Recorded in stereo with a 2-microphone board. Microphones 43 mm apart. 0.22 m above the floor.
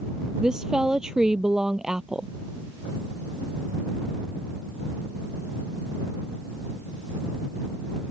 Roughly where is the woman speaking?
Centre.